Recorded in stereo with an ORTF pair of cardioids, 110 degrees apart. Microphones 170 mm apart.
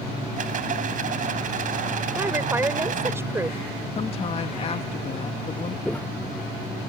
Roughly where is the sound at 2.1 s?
Ahead.